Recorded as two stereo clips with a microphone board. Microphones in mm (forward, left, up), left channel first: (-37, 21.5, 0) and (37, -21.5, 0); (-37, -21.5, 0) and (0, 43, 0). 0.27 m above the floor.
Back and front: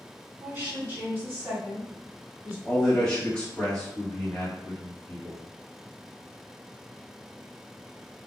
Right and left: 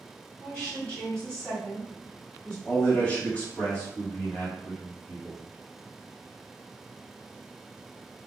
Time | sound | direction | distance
0.4 | a woman speaking | 60° right | 1.6 m
2.6 | a man speaking | 155° right | 1.4 m